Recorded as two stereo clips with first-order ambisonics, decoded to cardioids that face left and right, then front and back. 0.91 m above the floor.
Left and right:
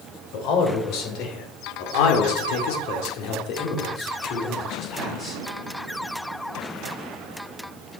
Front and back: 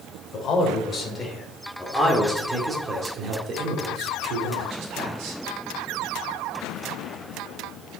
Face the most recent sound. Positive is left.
turn(degrees=155)